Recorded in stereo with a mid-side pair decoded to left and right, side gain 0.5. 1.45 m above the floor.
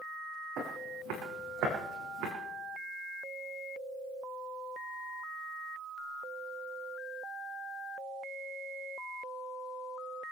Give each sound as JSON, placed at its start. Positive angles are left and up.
{"t": 0.6, "sound": "footsteps", "azimuth_deg": -70, "distance_m": 5.5}